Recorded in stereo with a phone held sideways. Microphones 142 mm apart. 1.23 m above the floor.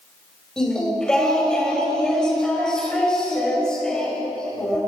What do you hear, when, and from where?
0.6 s singing: 5° left (ahead or behind), 5 m